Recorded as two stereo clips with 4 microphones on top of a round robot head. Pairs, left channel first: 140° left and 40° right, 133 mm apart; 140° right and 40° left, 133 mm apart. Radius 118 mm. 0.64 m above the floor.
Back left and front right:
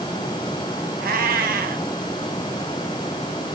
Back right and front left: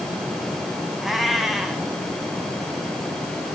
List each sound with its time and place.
1.0 s a cat meowing: 50° right, 1.2 m